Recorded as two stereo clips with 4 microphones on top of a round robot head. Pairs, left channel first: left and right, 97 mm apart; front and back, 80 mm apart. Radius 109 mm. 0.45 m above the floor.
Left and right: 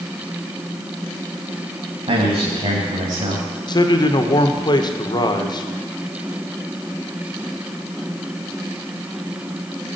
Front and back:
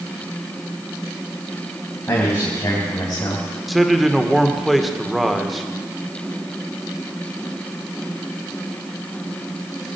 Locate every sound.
2.1 s a man speaking: 70° right, 3 m; by 3.5 s 60° right, 3.5 m
3.7 s a man speaking: 90° left, 1.9 m